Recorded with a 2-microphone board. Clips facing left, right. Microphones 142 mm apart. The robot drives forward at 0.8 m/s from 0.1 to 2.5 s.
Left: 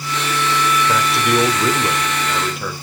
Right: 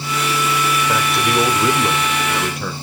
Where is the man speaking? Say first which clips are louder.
Left 1 dB; centre (ahead or behind), 1.1 m.